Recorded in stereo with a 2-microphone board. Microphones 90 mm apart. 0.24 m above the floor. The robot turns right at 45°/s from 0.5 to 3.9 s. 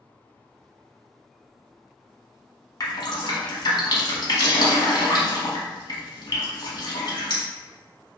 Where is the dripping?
45° left (ahead or behind), 0.8 m; by 7.4 s 55° left (ahead or behind), 0.8 m.